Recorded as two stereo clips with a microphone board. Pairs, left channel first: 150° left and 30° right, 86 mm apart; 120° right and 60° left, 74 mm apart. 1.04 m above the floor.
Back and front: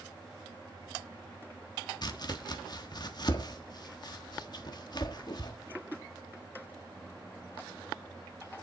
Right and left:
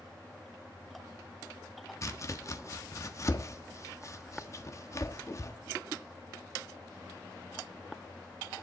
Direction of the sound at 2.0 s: 170° right.